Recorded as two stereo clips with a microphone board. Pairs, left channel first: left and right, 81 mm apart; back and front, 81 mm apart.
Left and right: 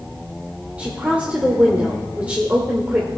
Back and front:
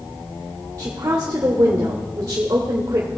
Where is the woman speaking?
25° right, 1.4 m.